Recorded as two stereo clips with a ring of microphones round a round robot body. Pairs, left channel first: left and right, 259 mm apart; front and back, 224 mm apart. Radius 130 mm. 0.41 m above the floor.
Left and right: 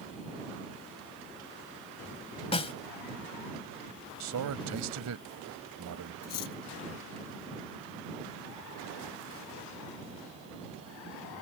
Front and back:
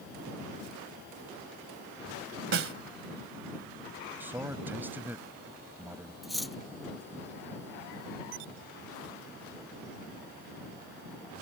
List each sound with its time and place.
2.5 s a snare drum: 155° left
4.2 s a man speaking: 100° right
6.2 s cutlery clinking: 90° left